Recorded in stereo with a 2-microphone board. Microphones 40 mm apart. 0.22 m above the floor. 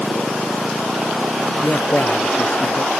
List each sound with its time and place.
1.6 s a man speaking: 50° left (ahead or behind)